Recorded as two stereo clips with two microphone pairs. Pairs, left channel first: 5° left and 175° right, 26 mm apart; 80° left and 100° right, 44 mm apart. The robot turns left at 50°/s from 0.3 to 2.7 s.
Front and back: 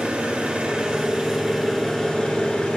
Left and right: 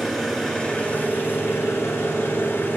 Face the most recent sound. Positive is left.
turn(degrees=40)